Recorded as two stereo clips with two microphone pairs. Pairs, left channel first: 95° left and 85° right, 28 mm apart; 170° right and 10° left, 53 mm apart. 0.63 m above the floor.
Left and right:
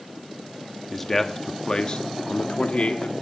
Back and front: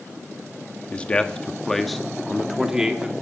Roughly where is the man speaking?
Behind.